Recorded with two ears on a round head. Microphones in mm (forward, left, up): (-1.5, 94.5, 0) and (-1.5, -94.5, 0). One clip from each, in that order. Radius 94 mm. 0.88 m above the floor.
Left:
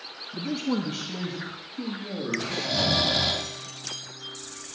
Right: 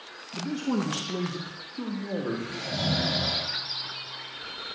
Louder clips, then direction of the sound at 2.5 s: Left 6 dB; 75° left (ahead or behind).